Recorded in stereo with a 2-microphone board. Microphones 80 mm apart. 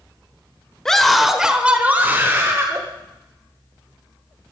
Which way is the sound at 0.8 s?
5° left (ahead or behind).